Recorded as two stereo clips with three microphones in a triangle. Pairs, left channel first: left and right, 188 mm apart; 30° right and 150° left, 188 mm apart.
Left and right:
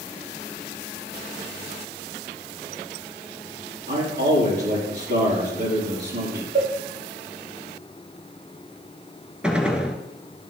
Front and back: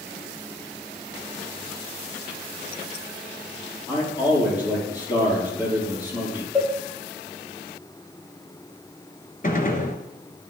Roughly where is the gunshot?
Ahead.